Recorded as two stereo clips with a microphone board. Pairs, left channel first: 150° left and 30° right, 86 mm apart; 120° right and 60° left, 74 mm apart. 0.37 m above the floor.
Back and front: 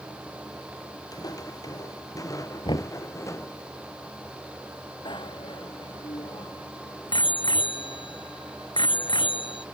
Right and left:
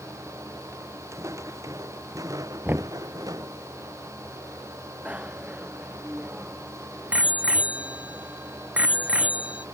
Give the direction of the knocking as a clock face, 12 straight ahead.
8 o'clock.